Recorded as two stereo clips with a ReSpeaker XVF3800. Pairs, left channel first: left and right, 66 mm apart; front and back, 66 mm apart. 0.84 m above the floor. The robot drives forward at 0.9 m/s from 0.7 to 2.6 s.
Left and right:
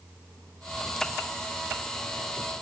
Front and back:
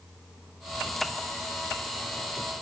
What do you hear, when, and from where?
Only background noise.